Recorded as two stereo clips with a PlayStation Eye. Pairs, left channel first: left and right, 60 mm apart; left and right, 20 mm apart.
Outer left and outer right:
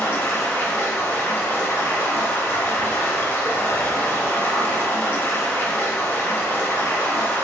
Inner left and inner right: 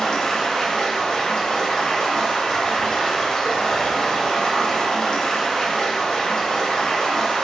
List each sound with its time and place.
0.0 s running water: 40° left (ahead or behind), 0.9 m